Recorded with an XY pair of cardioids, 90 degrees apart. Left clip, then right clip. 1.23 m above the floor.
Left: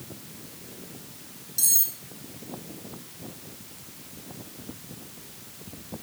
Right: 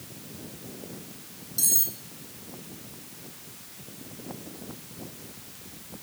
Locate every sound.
1.6 s cutlery clinking: 5° left, 0.9 m